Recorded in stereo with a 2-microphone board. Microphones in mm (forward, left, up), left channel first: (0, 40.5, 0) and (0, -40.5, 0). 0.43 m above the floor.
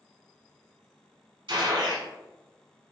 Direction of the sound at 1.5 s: 75° right (ahead or behind).